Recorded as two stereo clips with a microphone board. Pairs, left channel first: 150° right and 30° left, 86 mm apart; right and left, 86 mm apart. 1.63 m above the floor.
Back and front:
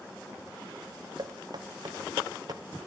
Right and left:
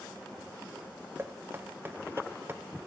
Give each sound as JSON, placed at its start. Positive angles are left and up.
{"t": 1.2, "sound": "knocking", "azimuth_deg": 30, "distance_m": 0.5}